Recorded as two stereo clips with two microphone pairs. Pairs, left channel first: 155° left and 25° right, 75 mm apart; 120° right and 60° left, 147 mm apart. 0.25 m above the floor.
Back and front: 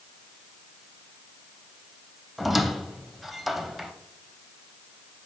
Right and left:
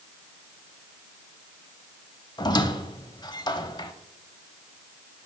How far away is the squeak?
About 0.7 m.